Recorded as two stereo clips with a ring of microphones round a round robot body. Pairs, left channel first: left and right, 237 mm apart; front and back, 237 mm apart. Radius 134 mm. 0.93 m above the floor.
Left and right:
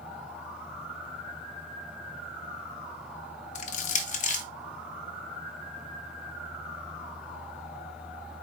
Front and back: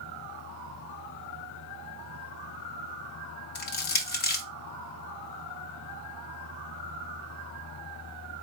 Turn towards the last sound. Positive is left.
turn(degrees=40)